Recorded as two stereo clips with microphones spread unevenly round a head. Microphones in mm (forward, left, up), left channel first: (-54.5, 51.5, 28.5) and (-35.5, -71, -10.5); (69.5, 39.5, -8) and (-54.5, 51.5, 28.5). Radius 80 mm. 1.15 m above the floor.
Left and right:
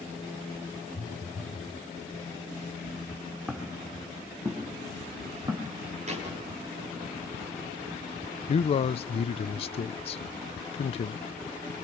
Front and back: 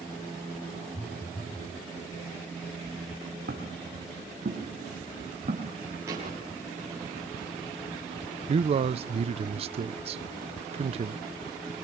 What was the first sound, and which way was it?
A phone buzzing, 80° left.